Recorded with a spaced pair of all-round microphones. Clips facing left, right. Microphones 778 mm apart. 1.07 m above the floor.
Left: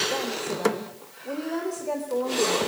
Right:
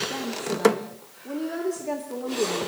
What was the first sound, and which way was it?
A woman speaking, 50° right (ahead or behind).